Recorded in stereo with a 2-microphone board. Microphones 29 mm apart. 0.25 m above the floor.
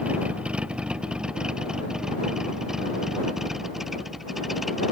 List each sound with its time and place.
0.0 s a vehicle: 45° right (ahead or behind); by 4.9 s 5° right (ahead or behind)